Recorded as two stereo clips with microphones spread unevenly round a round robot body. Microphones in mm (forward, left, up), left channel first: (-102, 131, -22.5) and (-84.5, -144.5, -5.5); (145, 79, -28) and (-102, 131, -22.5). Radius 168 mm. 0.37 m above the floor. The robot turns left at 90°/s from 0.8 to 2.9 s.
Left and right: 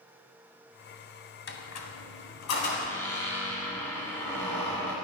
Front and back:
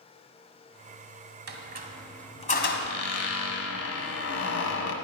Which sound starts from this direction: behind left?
A squeak, at 1.5 s.